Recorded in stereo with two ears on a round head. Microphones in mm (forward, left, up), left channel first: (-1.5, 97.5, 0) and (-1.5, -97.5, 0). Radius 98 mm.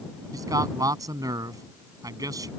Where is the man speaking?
15° right (ahead or behind).